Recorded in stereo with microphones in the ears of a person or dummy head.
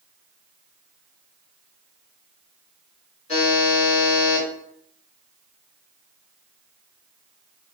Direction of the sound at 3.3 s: 30° left (ahead or behind).